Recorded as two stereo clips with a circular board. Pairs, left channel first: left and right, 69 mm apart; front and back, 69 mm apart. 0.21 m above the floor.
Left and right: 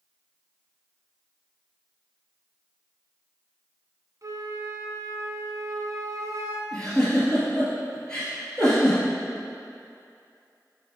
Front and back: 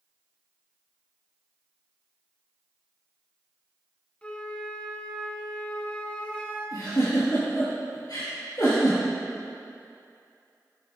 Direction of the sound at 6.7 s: 15° left.